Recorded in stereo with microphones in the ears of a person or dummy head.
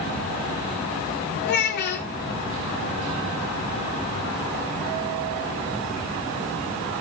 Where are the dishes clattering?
I don't hear dishes clattering.